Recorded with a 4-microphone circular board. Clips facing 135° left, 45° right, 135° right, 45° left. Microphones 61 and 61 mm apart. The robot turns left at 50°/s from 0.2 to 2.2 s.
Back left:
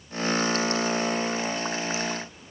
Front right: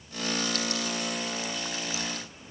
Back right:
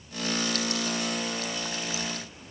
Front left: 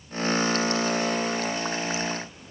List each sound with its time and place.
Only background noise.